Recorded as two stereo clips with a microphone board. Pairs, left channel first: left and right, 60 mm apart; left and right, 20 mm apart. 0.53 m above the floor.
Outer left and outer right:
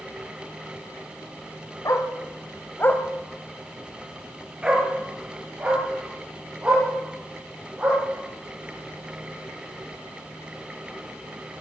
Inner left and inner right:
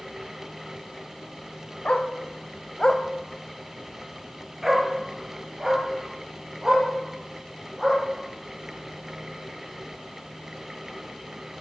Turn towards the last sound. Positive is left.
turn(degrees=-20)  # may be behind; listen again after turning